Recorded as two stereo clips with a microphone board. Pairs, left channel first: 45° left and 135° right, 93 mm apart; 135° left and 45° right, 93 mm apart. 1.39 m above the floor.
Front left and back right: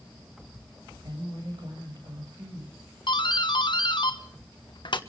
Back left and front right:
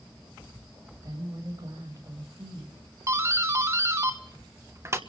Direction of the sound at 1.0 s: 95° right.